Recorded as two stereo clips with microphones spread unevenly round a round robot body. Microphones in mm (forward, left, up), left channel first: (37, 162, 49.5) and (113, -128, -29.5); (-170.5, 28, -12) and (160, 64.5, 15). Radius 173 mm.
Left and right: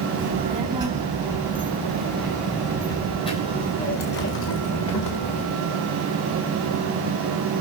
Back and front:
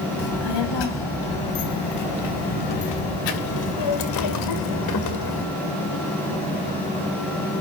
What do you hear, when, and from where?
0.2 s a child speaking: 150° right, 3.5 m; by 5.5 s 145° left, 2 m